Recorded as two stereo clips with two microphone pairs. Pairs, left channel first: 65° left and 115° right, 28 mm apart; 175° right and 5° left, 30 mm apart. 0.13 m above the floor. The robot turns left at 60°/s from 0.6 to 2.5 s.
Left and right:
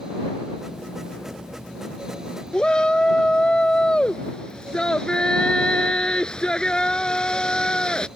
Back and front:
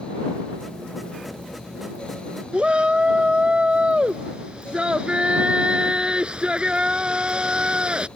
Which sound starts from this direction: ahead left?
A shout, at 2.5 s.